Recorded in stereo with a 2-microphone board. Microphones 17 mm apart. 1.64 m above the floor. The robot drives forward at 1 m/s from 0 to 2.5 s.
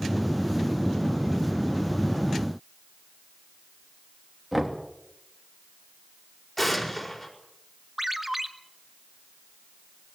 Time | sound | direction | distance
4.5 | knocking | 5° right (ahead or behind) | 3 m
6.6 | an explosion | 10° left (ahead or behind) | 5 m
8.0 | a ringtone | 15° right (ahead or behind) | 1.6 m